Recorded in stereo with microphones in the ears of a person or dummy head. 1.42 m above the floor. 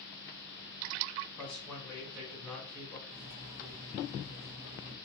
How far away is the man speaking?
About 1.4 m.